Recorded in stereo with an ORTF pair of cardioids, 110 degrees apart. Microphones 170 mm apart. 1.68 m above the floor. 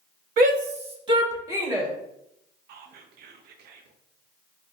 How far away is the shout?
About 0.7 m.